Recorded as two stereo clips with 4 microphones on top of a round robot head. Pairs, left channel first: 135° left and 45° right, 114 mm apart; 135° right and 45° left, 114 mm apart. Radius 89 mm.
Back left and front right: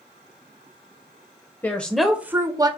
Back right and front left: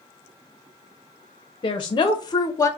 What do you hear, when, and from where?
1.6 s a woman speaking: 160° right, 0.8 m; by 2.7 s 80° right, 0.8 m